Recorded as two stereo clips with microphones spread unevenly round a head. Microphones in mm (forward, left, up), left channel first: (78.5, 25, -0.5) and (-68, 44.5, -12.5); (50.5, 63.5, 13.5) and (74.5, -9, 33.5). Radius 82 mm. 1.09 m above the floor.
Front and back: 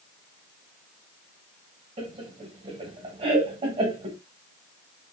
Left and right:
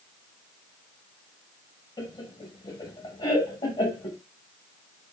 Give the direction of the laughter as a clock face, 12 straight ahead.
8 o'clock.